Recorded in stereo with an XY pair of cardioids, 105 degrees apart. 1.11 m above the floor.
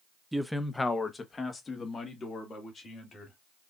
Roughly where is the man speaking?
Ahead.